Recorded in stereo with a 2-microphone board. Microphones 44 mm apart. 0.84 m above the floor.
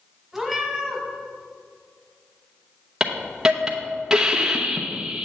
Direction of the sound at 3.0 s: 15° right (ahead or behind).